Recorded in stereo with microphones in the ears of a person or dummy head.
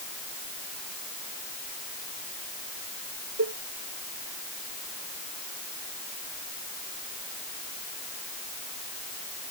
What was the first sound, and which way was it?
A cowbell, 65° right (ahead or behind).